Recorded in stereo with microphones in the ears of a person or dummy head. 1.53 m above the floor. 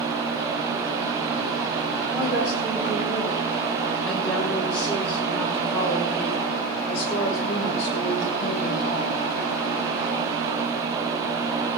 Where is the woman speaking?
Centre (ahead or behind), 4.5 m; by 9.2 s 60° left (ahead or behind), 2 m.